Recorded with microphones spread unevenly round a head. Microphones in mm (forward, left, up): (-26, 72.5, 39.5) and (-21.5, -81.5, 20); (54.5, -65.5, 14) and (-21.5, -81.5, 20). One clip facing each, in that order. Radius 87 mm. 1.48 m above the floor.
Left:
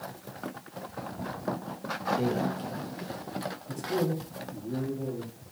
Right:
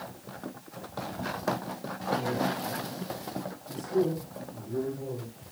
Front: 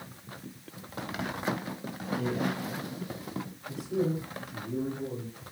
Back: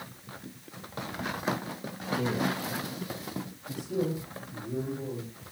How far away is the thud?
No thud in this recording.